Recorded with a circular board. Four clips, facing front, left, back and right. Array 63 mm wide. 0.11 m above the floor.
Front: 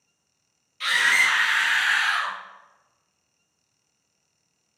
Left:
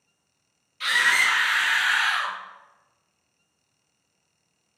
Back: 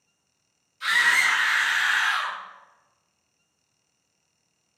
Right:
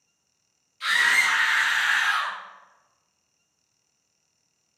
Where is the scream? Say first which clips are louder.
Even, even; 30° left, 3 m; by 2.4 s 35° left, 2 m.